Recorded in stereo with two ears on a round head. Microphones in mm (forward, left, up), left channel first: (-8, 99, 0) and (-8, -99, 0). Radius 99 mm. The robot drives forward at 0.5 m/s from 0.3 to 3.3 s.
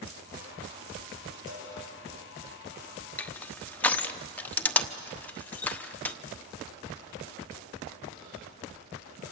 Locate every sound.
1.5 s a cowbell: 65° right (ahead or behind), 8.5 m
3.2 s crushing: 5° left (ahead or behind), 1.0 m